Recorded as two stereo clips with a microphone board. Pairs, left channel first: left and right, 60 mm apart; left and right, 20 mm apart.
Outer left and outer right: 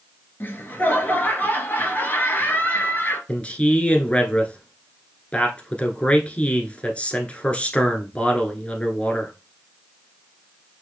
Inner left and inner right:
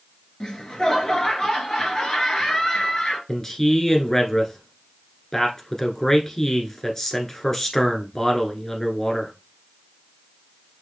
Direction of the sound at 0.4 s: 35° left (ahead or behind).